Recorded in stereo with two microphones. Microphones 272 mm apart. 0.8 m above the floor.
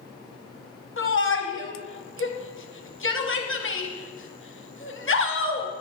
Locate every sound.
1.0 s a shout: 50° left (ahead or behind), 0.9 m